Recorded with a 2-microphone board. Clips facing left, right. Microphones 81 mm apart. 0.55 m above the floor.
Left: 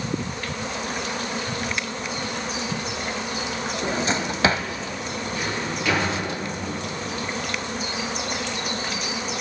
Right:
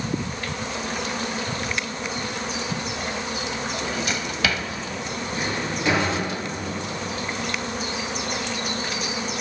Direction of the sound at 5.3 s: 20° right (ahead or behind).